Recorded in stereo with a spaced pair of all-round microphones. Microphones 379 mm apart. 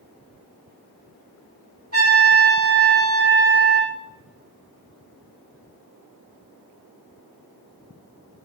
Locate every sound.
1.9 s a trumpet: 35° right (ahead or behind), 1.5 m